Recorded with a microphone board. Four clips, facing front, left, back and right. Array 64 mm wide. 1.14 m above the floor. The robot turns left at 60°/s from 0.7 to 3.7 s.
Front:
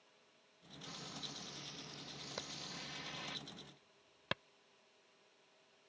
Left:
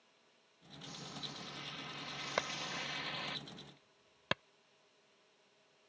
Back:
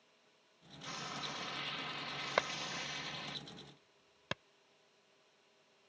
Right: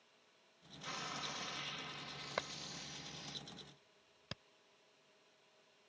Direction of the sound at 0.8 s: 120° right.